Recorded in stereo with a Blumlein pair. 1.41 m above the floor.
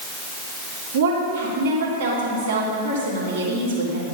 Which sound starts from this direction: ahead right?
A woman speaking, at 0.9 s.